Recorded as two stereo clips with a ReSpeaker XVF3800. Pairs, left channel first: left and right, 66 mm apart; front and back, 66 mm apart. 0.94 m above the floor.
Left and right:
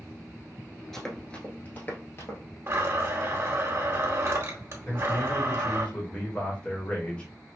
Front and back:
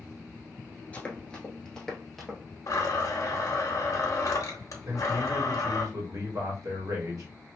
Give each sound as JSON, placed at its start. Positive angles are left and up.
{"t": 0.9, "sound": "running footsteps", "azimuth_deg": 15, "distance_m": 0.9}
{"t": 2.7, "sound": "a blender", "azimuth_deg": -40, "distance_m": 0.9}
{"t": 4.9, "sound": "a man speaking", "azimuth_deg": 160, "distance_m": 1.4}